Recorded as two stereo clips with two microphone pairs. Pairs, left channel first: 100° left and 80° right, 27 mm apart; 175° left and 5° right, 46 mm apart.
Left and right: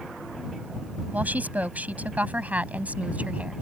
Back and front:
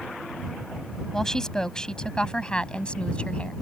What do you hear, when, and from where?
1.1 s a woman speaking: 105° right; by 3.5 s 120° right